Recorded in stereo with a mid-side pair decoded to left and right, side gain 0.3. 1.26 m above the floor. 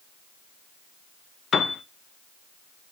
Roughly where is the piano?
Left.